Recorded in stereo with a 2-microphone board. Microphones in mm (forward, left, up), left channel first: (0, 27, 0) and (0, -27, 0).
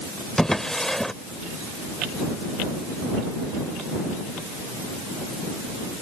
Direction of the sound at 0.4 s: 10° left (ahead or behind).